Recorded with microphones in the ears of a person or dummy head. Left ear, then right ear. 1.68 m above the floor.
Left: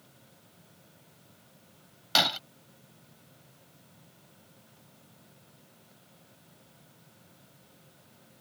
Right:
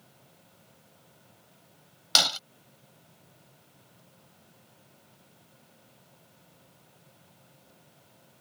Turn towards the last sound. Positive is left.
turn(degrees=-30)  # may be behind; listen again after turning